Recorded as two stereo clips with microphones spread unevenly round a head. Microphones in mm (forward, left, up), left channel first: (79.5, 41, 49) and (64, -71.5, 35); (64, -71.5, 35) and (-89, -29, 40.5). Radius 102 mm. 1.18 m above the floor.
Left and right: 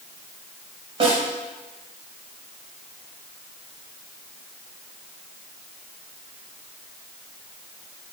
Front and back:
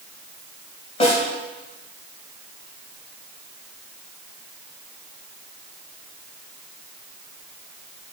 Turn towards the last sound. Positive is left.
turn(degrees=-65)